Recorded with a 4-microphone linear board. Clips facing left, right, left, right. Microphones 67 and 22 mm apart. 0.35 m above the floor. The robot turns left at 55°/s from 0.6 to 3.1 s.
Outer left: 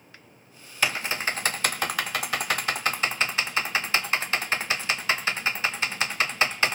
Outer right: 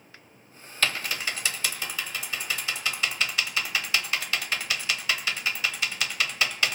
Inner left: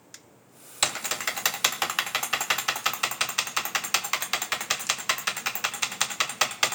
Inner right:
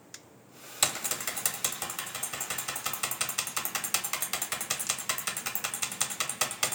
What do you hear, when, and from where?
0.8 s typing on a keyboard: 15° left (ahead or behind), 0.6 m; by 6.7 s 35° left (ahead or behind), 0.6 m